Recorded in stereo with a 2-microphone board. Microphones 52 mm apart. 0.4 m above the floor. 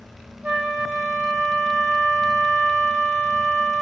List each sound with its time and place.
0.4 s a flute: 30° right (ahead or behind), 5.5 m